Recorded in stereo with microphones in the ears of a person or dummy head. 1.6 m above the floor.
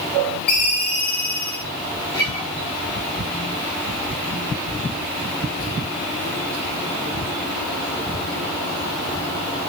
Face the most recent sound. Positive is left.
turn(degrees=10)  # may be behind; listen again after turning